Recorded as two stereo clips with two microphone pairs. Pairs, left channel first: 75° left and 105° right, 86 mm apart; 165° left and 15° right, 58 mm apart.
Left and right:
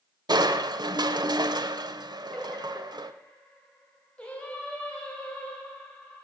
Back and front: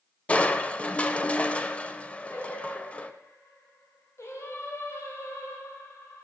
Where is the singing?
145° left, 1.8 m.